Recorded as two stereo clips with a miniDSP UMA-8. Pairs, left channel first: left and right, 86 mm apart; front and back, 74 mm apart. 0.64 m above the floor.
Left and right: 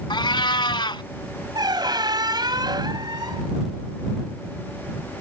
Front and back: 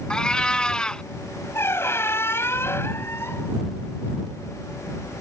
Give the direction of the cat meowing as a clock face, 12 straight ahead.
9 o'clock.